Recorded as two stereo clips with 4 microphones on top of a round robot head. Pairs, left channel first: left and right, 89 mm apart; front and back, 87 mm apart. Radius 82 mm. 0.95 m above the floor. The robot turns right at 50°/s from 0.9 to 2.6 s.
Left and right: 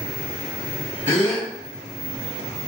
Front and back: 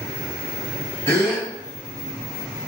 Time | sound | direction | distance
1.1 | a gasp | 65° left | 1.7 m